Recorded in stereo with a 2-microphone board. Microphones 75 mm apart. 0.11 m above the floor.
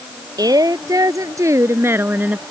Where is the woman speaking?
60° right (ahead or behind); by 2.4 s 20° right (ahead or behind).